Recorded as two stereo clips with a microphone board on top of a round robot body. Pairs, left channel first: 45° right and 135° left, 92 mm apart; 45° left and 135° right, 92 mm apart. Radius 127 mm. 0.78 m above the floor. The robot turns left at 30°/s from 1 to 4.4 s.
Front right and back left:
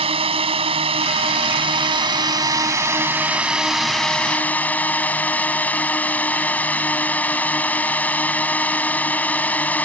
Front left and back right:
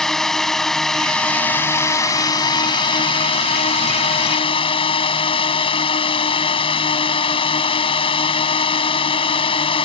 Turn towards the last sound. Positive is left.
turn(degrees=30)